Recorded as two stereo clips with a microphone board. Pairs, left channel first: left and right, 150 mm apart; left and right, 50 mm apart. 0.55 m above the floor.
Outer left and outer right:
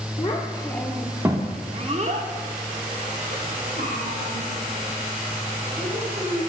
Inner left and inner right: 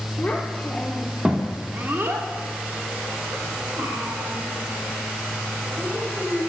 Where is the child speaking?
35° left (ahead or behind), 0.7 m; by 6.4 s 85° right, 3 m.